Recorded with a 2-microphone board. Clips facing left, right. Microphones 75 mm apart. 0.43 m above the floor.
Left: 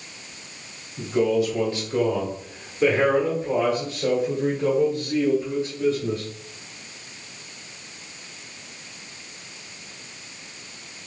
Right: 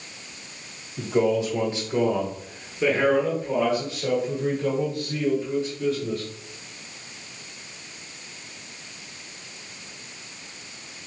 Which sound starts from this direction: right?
A man speaking, at 1.0 s.